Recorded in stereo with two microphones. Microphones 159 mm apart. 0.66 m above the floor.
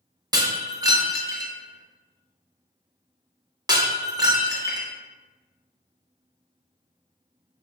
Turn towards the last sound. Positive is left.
turn(degrees=-20)  # may be behind; listen again after turning